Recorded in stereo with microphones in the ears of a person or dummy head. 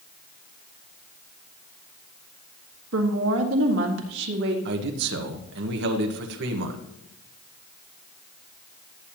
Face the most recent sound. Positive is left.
turn(degrees=-65)  # may be behind; listen again after turning